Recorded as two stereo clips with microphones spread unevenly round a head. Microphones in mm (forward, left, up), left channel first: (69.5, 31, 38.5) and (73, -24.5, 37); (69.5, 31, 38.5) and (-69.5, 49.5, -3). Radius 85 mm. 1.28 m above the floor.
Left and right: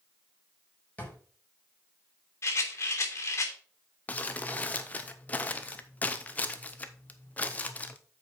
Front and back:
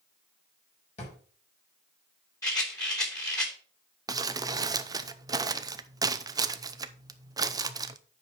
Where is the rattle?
55° left, 3 m.